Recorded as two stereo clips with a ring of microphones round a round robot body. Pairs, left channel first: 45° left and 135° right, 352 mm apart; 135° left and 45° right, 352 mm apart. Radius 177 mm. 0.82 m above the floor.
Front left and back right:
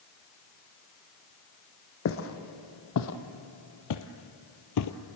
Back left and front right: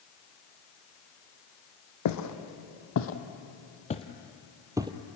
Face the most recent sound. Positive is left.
turn(degrees=30)